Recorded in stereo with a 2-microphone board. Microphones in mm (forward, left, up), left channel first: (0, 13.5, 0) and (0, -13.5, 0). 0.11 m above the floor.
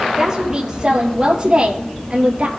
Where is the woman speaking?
20° right (ahead or behind), 3.5 m; by 2.5 s 40° right (ahead or behind), 2.5 m.